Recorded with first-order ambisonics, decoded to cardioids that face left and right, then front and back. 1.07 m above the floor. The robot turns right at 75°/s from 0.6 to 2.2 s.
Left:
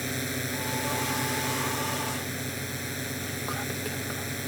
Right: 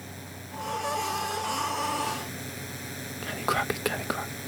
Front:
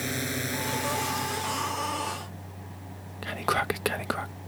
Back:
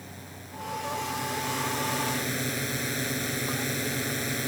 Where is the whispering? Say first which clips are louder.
Right 10 dB, front 3 dB; 35° right.